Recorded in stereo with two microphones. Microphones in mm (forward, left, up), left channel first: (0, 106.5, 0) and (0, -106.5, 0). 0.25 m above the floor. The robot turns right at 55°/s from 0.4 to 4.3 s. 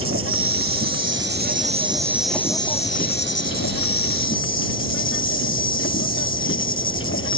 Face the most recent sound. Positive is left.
turn(degrees=110)